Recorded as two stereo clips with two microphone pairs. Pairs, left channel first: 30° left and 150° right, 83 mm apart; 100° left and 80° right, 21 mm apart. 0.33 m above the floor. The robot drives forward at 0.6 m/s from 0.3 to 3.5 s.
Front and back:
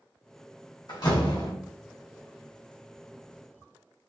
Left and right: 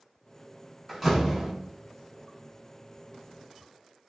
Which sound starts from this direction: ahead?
A door slam, at 0.9 s.